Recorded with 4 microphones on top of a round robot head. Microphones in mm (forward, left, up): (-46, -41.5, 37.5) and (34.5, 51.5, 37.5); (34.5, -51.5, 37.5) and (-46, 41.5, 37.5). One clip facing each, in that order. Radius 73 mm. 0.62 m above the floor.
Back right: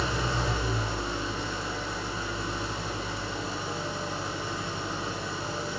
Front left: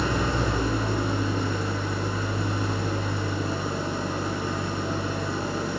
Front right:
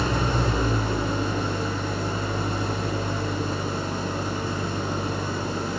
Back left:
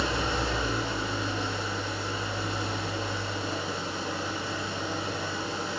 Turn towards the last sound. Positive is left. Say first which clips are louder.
# front left 4 dB, front right 4 dB
turn(degrees=5)